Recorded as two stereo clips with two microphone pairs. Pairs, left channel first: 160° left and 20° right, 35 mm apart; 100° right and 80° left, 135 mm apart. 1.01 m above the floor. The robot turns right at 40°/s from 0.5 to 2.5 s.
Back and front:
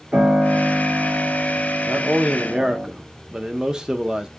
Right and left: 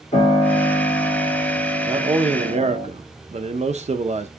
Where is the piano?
70° right, 1.7 m; by 2.9 s 10° left, 1.7 m.